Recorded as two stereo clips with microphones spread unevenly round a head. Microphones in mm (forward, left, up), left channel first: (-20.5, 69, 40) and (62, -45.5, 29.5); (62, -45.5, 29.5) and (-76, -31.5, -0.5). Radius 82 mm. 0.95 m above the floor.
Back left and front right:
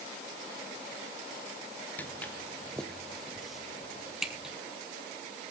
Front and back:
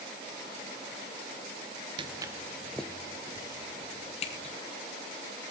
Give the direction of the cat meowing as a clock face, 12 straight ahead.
I don't hear a cat meowing.